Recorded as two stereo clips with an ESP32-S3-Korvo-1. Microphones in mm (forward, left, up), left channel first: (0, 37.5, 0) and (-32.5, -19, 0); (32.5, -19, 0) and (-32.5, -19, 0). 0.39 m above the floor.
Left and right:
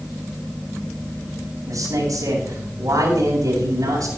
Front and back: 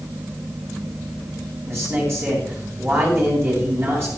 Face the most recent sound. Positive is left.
turn(degrees=-135)